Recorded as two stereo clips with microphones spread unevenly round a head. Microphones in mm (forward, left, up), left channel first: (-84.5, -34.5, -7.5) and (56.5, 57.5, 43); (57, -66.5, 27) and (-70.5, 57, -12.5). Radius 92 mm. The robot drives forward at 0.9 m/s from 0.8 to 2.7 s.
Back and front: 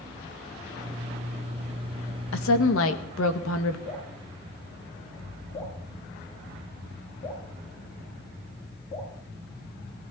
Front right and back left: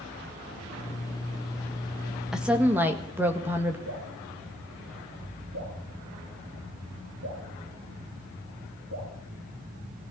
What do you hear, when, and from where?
2.3 s a woman speaking: 135° right, 1.5 m; by 3.8 s 140° right, 1.8 m
3.9 s dripping: 160° left, 9.5 m